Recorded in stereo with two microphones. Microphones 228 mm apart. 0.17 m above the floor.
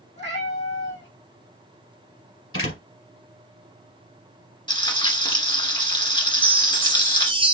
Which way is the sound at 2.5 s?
70° left (ahead or behind).